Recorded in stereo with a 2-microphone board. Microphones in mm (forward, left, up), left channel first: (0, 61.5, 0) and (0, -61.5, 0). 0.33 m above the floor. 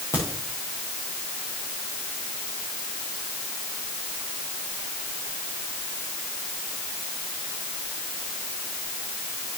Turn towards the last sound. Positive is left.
turn(degrees=20)  # may be behind; listen again after turning